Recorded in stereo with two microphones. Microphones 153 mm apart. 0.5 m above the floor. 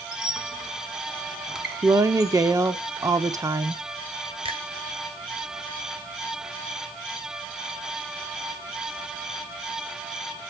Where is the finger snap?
35° right (ahead or behind), 1.7 m.